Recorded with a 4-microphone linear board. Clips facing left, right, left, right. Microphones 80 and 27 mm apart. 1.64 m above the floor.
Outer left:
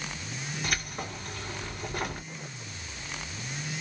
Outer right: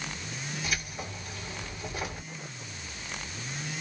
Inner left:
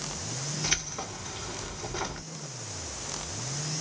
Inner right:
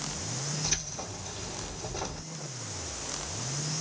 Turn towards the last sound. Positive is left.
turn(degrees=60)  # may be behind; listen again after turning